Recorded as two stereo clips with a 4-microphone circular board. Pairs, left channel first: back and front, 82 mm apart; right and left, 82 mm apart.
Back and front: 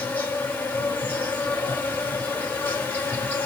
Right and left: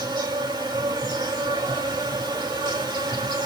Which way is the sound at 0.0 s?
115° left.